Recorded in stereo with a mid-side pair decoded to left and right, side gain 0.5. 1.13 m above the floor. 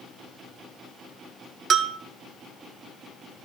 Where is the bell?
55° right, 0.6 m.